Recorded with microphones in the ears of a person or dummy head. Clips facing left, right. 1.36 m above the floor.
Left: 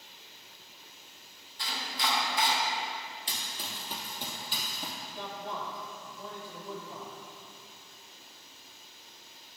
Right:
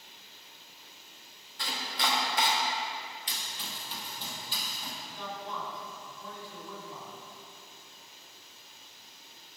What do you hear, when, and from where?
1.6 s chopping: 50° right (ahead or behind), 1.0 m
3.3 s running footsteps: 35° left (ahead or behind), 1.9 m; by 4.9 s 55° left (ahead or behind), 3 m
5.0 s a man speaking: 45° left (ahead or behind), 2.5 m